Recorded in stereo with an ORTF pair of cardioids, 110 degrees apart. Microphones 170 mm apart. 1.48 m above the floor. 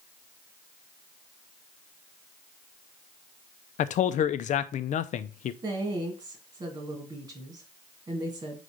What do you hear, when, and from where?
3.8 s a man speaking: 50° left, 0.6 m
5.6 s a woman speaking: 30° right, 2 m